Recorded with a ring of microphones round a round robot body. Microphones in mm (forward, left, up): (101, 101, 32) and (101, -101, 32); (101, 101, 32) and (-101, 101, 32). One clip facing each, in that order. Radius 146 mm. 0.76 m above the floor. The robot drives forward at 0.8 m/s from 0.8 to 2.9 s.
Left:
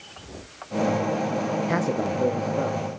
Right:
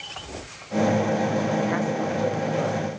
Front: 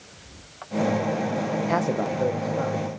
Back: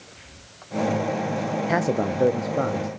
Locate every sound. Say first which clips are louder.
1.7 s a man speaking: even, back 4 dB; 100° left, 0.6 m; by 2.9 s 160° left, 1.2 m